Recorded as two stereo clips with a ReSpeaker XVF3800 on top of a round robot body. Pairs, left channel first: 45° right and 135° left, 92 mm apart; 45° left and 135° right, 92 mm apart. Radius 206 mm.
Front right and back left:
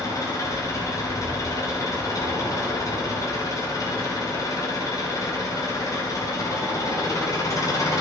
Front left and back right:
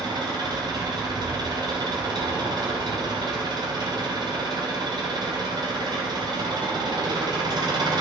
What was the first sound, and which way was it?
An engine running, 95° right.